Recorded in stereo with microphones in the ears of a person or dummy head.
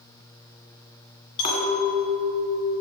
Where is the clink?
50° left (ahead or behind), 2 m.